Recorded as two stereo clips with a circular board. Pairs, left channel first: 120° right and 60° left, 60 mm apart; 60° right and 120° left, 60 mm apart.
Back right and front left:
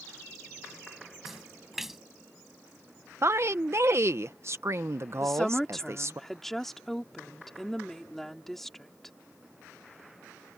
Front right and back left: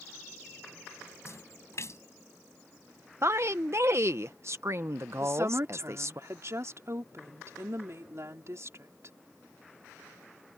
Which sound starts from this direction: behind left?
A woman speaking, at 5.2 s.